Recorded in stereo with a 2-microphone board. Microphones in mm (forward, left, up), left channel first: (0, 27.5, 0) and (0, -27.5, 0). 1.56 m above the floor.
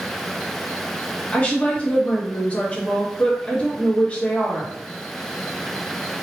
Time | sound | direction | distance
1.3 | a woman speaking | 20° left (ahead or behind) | 1.5 m